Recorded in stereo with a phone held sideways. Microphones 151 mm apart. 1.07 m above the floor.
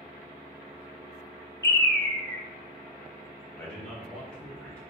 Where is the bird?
20° left (ahead or behind), 0.8 m.